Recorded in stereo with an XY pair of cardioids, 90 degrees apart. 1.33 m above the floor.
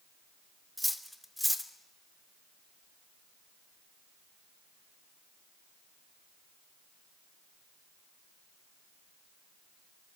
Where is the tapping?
No tapping in this recording.